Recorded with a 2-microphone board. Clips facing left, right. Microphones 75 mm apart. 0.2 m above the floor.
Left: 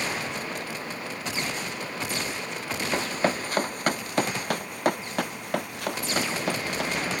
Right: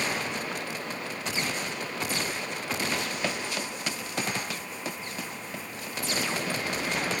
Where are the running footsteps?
35° left (ahead or behind); by 7.0 s 70° left (ahead or behind).